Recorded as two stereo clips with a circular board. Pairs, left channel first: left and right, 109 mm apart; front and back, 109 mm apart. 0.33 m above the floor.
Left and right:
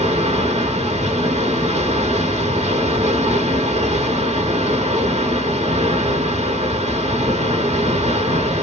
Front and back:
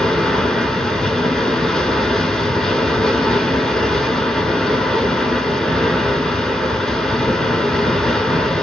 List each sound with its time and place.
0.0 s running water: 85° right, 0.7 m